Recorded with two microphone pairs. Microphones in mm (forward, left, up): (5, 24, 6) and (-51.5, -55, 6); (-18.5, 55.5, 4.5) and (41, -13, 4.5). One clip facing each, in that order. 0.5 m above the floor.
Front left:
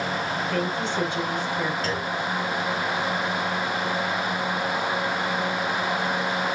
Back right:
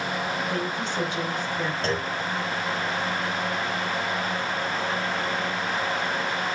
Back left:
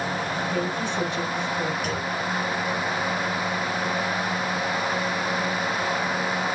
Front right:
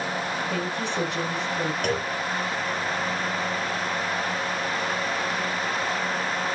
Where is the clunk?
65° right, 3 m.